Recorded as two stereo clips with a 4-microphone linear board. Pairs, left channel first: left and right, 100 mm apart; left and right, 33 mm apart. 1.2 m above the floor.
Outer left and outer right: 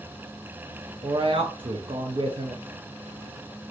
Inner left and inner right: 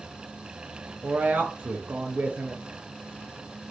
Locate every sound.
1.0 s a woman speaking: 55° right (ahead or behind), 0.6 m